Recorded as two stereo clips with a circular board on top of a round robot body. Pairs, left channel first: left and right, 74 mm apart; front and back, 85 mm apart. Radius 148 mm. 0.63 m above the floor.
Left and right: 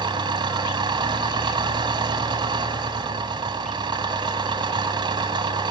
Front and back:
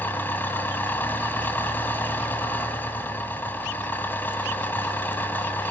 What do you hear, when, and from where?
0.0 s an engine running: 70° right, 1.3 m